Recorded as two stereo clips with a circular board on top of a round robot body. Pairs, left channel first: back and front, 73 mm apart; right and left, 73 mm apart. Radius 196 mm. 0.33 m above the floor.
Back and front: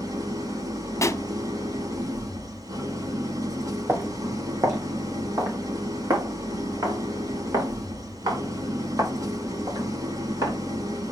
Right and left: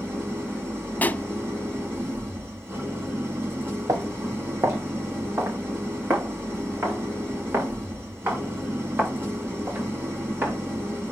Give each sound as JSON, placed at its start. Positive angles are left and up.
{"t": 0.0, "sound": "an engine running", "azimuth_deg": 30, "distance_m": 7.0}
{"t": 1.0, "sound": "a pop", "azimuth_deg": -150, "distance_m": 0.9}
{"t": 3.9, "sound": "footsteps", "azimuth_deg": 60, "distance_m": 1.3}